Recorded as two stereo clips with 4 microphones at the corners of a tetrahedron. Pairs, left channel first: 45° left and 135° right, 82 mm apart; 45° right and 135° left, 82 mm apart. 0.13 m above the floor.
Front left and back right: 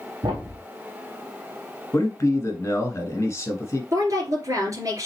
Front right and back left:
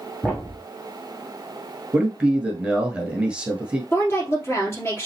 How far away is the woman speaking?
About 2.5 m.